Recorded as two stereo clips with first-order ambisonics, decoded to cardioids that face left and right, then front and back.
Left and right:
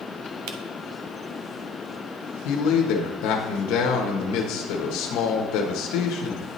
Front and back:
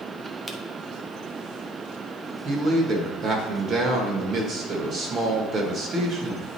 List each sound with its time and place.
0.5 s a camera shutter: 95° right, 0.7 m
2.5 s a man speaking: 120° left, 1.1 m